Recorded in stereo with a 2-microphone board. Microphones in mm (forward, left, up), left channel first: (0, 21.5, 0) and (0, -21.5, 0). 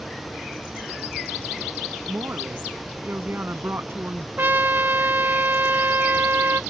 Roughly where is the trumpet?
Right.